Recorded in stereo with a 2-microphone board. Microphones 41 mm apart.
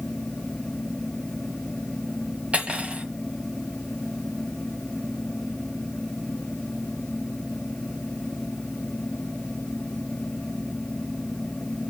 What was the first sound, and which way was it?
Cutlery clinking, 30° right (ahead or behind).